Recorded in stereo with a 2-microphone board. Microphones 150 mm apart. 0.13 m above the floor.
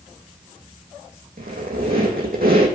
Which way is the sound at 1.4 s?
85° right.